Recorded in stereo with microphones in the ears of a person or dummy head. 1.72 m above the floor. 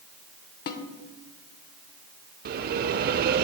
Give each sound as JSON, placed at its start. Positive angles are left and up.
{"t": 0.7, "sound": "a snare drum", "side_deg": 45, "distance_m": 1.0}
{"t": 2.5, "sound": "a bell", "side_deg": -50, "distance_m": 0.5}